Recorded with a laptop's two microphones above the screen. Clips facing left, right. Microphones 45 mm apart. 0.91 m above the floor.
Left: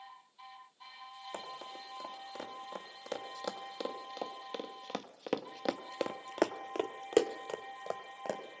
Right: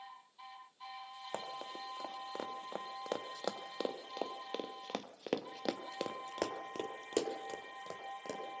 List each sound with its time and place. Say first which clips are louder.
1.3 s running footsteps: right 3 dB; 25° right (ahead or behind), 3 m; by 8.4 s 40° left (ahead or behind), 1.9 m